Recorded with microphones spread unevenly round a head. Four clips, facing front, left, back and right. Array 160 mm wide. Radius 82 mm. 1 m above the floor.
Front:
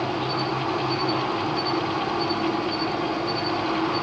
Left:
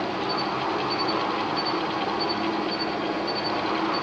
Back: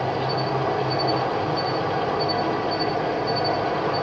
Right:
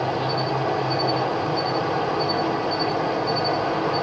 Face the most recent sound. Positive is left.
turn(degrees=-135)